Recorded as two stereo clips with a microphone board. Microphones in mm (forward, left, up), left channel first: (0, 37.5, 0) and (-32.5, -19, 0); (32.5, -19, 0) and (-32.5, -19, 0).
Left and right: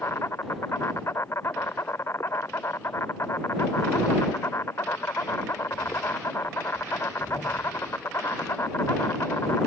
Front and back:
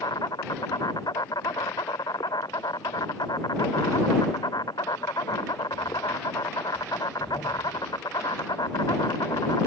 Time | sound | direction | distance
0.0 | an insect | 10° left | ?